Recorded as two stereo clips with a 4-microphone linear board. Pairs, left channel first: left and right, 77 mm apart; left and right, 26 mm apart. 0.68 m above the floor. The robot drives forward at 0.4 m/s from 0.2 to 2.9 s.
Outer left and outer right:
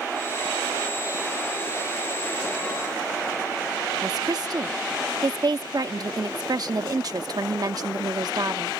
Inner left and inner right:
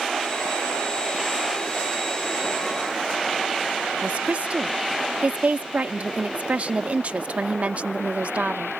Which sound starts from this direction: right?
A woman speaking, at 4.0 s.